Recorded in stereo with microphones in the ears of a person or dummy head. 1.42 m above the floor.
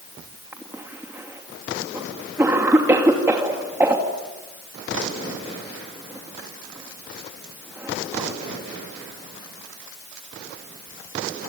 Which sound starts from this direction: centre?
A cough, at 0.5 s.